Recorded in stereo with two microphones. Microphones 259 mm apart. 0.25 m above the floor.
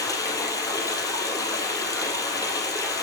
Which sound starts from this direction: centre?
Running water, at 0.0 s.